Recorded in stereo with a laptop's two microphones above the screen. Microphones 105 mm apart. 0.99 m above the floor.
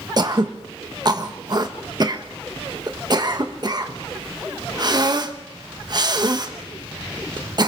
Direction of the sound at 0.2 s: 40° right (ahead or behind).